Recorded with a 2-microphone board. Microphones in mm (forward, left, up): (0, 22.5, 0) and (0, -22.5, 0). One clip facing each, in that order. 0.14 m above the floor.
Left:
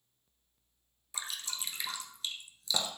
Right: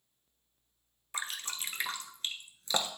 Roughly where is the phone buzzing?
No phone buzzing in this recording.